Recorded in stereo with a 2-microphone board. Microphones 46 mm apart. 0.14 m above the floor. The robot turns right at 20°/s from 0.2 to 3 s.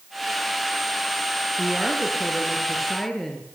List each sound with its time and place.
1.6 s a woman speaking: 20° right (ahead or behind), 3 m; by 3.6 s 5° left (ahead or behind), 3 m